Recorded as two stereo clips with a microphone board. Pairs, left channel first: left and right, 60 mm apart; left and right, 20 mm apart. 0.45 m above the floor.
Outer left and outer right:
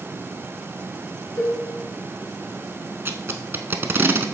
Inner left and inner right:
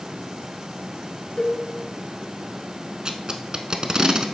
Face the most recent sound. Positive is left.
turn(degrees=-40)  # may be behind; listen again after turning